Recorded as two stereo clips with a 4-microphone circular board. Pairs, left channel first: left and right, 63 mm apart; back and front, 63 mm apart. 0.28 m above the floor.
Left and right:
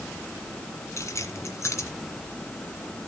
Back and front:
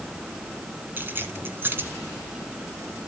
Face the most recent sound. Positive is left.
turn(degrees=55)